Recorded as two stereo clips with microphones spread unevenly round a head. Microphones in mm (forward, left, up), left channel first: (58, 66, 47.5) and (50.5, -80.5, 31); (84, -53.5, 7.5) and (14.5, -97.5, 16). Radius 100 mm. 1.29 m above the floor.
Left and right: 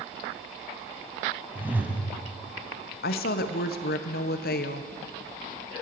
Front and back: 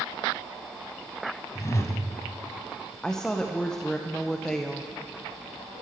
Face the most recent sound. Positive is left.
turn(degrees=115)